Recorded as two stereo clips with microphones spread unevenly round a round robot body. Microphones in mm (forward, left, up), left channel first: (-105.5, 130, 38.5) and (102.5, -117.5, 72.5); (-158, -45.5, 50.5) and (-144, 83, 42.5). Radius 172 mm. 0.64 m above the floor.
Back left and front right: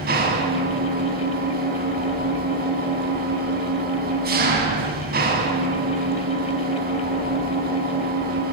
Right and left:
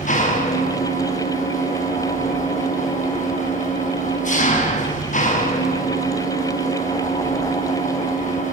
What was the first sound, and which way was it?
An engine running, 115° right.